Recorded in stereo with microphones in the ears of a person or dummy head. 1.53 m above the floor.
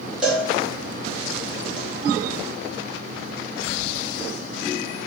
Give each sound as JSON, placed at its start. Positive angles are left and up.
{"t": 0.2, "sound": "a cowbell", "side_deg": -5, "distance_m": 1.5}